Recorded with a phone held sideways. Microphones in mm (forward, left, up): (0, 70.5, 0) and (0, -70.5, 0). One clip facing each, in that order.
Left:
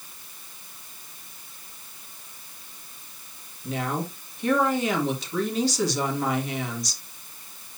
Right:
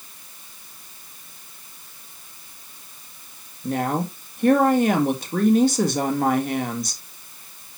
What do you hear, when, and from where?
3.6 s a woman speaking: 50° right (ahead or behind), 1.8 m